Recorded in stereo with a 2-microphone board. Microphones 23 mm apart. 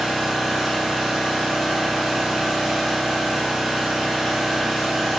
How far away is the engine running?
About 2.5 m.